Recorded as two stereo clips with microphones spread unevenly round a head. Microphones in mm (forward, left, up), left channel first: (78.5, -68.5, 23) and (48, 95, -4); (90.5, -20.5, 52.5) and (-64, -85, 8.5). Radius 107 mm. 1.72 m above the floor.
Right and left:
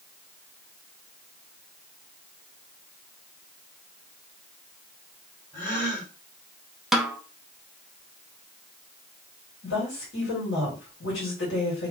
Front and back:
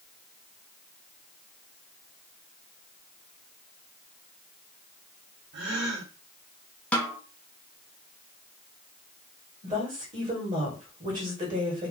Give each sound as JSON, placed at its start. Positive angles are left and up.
{"t": 5.5, "sound": "a gasp", "azimuth_deg": -150, "distance_m": 2.0}
{"t": 6.9, "sound": "a snare drum", "azimuth_deg": -5, "distance_m": 0.5}
{"t": 9.6, "sound": "a woman speaking", "azimuth_deg": -110, "distance_m": 1.8}